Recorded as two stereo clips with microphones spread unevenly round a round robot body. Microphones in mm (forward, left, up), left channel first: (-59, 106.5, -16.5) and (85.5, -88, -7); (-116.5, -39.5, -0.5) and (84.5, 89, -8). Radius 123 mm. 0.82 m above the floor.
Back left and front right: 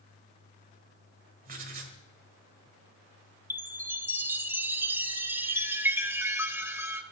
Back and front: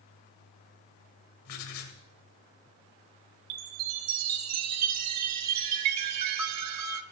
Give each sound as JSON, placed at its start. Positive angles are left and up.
{"t": 1.4, "sound": "writing", "azimuth_deg": -110, "distance_m": 2.0}
{"t": 3.5, "sound": "a chime", "azimuth_deg": 25, "distance_m": 1.0}